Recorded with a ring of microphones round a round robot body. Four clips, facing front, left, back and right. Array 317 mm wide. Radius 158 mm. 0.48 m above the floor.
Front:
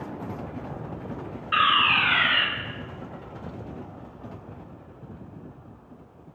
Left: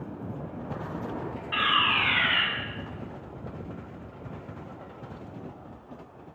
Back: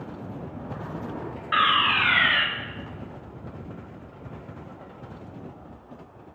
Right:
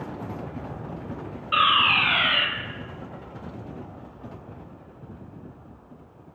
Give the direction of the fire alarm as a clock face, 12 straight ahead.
4 o'clock.